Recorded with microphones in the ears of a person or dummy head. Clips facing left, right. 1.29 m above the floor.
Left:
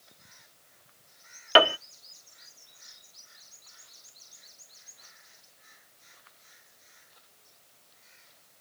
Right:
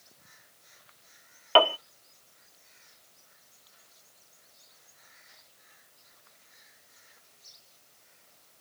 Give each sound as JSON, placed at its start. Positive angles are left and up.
{"t": 1.6, "sound": "a piano", "side_deg": 30}